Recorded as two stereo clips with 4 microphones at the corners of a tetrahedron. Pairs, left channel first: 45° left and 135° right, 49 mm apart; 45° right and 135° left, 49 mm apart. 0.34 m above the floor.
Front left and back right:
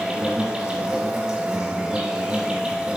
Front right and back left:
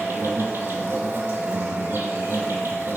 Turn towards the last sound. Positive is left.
turn(degrees=150)